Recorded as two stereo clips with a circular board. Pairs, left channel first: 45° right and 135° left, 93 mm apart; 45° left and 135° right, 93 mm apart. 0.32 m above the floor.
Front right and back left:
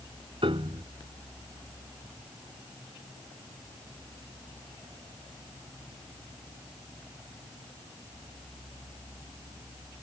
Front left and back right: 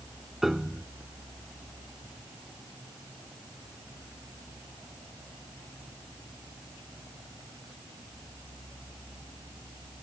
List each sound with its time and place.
0.4 s a piano: 135° left